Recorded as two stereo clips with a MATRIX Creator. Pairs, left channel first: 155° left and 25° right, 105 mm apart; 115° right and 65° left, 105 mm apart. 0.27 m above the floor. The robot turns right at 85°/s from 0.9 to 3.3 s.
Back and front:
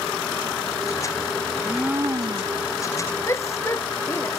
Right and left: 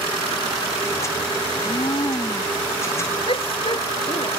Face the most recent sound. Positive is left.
turn(degrees=-140)